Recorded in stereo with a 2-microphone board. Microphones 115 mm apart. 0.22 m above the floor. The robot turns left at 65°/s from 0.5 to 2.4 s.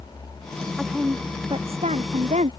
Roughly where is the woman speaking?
Ahead.